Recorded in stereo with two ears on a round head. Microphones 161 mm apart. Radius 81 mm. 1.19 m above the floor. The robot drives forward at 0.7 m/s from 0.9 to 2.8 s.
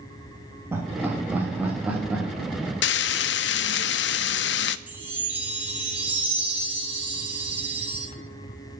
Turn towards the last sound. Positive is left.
turn(degrees=-10)  # may be behind; listen again after turning